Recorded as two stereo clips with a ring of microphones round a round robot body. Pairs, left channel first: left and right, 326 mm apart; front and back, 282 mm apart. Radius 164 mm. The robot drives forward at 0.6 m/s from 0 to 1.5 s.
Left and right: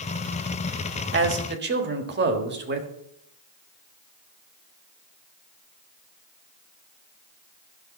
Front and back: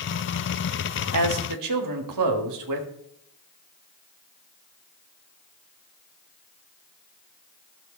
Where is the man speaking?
145° right, 1.4 m; by 2.9 s 150° right, 1.5 m.